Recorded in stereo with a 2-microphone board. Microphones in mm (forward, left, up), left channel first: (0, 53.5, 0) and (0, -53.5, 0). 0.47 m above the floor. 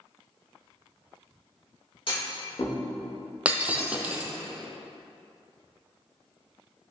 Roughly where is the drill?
No drill in this recording.